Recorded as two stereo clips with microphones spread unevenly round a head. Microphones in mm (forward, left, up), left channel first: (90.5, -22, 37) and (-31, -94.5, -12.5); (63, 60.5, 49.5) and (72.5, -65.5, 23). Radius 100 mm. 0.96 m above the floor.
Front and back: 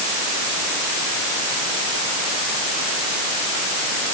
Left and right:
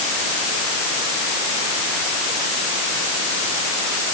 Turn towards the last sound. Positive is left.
No sound to turn to.